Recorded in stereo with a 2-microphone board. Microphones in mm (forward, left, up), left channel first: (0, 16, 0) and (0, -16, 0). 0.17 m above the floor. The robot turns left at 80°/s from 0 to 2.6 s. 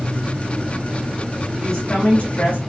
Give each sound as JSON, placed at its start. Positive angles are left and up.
{"t": 1.6, "sound": "a woman speaking", "azimuth_deg": -175, "distance_m": 2.0}